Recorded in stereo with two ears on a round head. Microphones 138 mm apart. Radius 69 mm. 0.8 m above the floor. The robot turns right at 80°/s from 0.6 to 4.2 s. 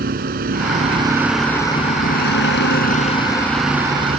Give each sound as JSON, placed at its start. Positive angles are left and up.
{"t": 0.0, "sound": "a vehicle", "azimuth_deg": -60}